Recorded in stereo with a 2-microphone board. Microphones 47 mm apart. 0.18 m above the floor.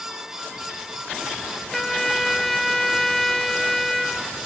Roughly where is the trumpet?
Centre.